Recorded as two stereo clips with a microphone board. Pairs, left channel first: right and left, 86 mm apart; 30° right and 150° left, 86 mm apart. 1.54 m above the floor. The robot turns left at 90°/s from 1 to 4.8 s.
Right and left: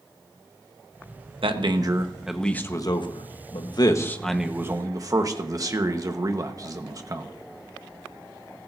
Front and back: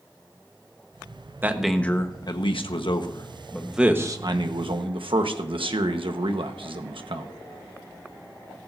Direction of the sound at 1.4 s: 85° left.